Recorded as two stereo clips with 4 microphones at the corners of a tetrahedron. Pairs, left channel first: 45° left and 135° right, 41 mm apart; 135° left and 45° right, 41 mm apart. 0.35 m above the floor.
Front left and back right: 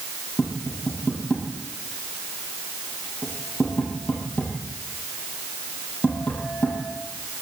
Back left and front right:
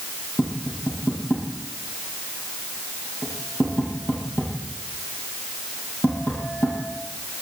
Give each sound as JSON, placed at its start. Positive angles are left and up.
{"t": 0.4, "sound": "tapping", "azimuth_deg": 100, "distance_m": 9.5}